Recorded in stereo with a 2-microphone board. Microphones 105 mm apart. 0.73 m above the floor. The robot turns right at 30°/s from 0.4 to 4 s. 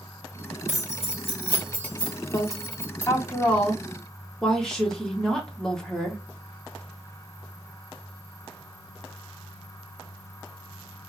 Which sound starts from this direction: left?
Keys jangling, at 0.7 s.